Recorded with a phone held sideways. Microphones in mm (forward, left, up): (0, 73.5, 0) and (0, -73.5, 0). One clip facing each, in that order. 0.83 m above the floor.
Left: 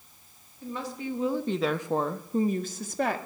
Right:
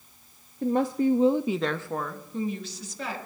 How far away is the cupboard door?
I don't hear a cupboard door.